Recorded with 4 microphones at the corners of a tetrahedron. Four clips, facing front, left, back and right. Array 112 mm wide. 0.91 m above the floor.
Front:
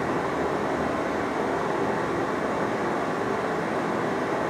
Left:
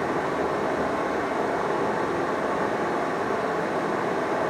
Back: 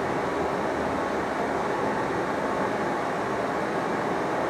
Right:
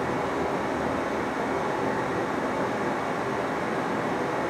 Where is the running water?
60° left, 0.9 m.